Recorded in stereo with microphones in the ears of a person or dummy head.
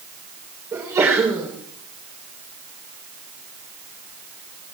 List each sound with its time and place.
0.7 s a sneeze: 10° right (ahead or behind), 4.5 m